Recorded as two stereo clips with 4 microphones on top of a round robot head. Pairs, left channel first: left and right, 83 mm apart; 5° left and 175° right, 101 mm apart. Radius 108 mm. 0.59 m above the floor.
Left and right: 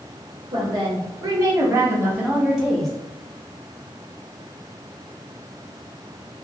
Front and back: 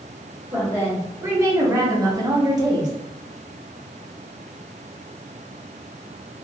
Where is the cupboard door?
No cupboard door in this recording.